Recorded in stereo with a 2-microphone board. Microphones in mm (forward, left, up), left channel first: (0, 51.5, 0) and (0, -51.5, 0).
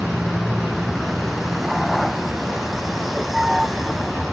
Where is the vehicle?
Centre (ahead or behind).